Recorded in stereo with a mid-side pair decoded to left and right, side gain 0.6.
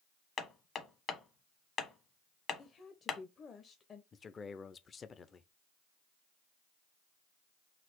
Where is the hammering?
40° left, 1.1 m.